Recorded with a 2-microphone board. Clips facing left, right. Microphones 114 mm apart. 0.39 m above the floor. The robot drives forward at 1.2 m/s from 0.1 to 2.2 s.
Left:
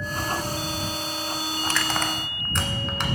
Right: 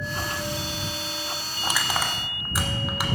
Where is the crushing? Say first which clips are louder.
Right 1 dB; 15° right (ahead or behind), 0.6 m; by 3.0 s 5° right (ahead or behind), 1.3 m.